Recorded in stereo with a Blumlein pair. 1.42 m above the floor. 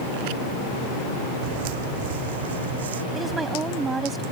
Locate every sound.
1.4 s footsteps: 45° right; by 3.0 s 65° right
3.1 s a woman speaking: 15° right